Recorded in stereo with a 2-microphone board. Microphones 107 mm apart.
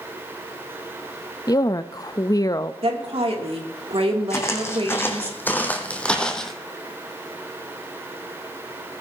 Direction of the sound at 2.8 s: 65° right (ahead or behind).